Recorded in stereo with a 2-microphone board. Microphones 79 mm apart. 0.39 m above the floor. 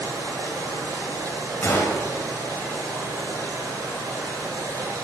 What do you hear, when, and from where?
0.0 s running water: 45° right (ahead or behind), 5 m
1.6 s a gunshot: 35° left (ahead or behind), 2.0 m